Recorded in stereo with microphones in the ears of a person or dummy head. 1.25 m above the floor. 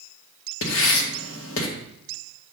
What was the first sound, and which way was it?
Writing, 75° left (ahead or behind).